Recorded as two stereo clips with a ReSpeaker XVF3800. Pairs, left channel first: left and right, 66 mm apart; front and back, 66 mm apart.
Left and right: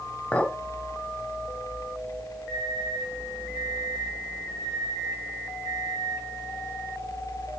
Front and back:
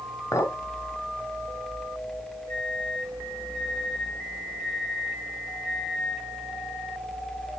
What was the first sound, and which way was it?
A clink, 25° left.